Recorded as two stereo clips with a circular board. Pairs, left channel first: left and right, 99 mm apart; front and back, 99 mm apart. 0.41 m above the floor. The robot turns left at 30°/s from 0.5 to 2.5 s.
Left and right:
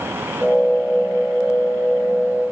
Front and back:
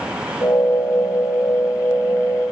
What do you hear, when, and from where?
Only background noise.